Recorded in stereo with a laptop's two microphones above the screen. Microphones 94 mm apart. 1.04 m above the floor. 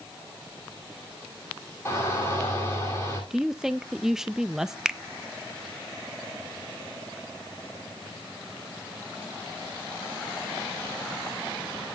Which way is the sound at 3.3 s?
5° right (ahead or behind).